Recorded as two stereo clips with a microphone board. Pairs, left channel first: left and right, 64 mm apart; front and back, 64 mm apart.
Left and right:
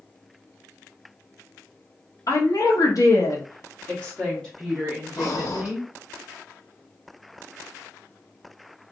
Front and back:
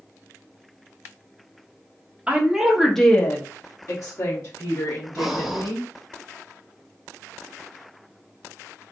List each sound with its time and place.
2.3 s a woman speaking: 110° left, 1.0 m; by 5.9 s 10° right, 1.8 m
5.2 s breathing: 95° left, 0.6 m